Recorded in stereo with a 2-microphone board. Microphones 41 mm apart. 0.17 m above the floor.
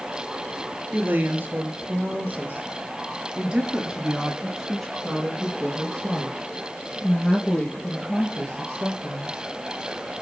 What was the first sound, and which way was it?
A woman speaking, 50° right (ahead or behind).